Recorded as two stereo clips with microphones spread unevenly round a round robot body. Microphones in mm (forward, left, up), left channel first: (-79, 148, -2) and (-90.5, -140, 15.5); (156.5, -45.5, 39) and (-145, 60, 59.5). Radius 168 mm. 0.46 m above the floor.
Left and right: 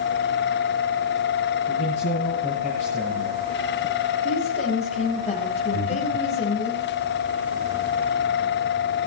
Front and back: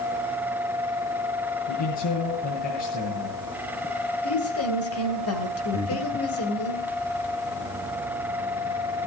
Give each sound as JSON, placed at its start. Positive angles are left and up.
{"t": 1.7, "sound": "a man speaking", "azimuth_deg": 15, "distance_m": 6.5}
{"t": 4.2, "sound": "a woman speaking", "azimuth_deg": 20, "distance_m": 3.0}
{"t": 5.7, "sound": "breathing", "azimuth_deg": -75, "distance_m": 1.3}